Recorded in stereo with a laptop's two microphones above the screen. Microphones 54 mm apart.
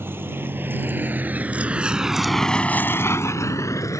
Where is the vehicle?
45° right (ahead or behind); by 4.0 s 85° left.